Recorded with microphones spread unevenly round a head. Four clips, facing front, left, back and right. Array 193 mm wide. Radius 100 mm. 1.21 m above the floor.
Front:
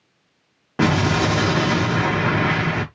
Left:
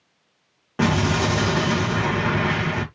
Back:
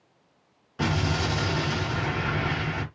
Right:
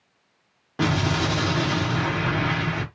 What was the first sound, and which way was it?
An explosion, 10° left.